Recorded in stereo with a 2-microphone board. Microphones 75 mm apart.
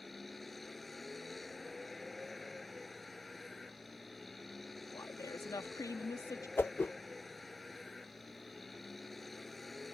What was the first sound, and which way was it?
A vehicle, 5° left (ahead or behind).